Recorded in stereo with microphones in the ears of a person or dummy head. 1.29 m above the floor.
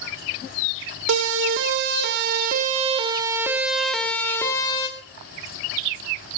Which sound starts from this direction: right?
A siren, at 1.1 s.